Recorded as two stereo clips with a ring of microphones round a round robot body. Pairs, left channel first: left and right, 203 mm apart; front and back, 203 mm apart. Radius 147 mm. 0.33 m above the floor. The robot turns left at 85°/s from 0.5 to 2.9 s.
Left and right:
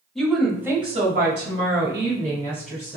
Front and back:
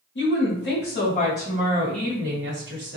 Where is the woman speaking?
Straight ahead, 1.5 m; by 3.0 s 155° left, 1.5 m.